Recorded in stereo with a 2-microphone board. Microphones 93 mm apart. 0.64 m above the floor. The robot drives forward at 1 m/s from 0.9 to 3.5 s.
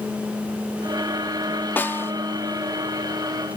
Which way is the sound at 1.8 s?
20° left (ahead or behind).